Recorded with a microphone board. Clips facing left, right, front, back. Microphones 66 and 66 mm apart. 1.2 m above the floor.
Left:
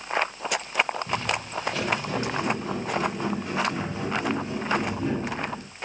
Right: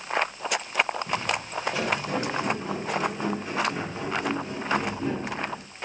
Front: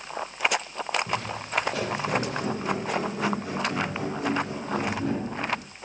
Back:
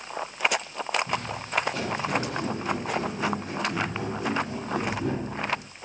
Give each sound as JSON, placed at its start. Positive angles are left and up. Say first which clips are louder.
{"t": 1.1, "sound": "footsteps", "louder": "even, even", "azimuth_deg": -10, "distance_m": 8.0}